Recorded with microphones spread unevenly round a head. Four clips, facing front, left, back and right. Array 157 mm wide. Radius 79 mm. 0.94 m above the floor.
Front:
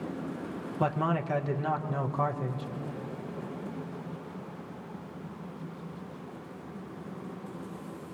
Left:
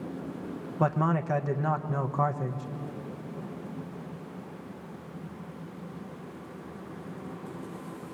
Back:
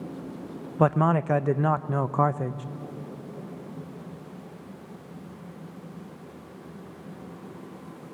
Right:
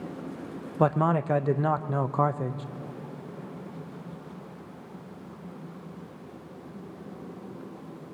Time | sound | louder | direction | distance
0.8 | a man speaking | right 3 dB, back 7 dB | 145° right | 0.6 m